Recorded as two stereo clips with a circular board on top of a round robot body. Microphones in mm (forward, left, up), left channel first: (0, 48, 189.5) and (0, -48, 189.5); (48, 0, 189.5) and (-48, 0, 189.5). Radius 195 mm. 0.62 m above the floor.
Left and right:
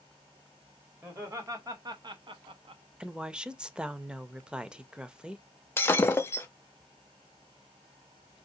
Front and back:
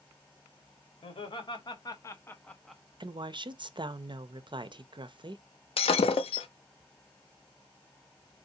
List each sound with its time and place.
1.0 s laughter: 25° right, 1.4 m; by 2.8 s 95° right, 0.9 m
3.0 s a woman speaking: 170° right, 0.7 m
5.8 s breaking glass: 25° left, 0.6 m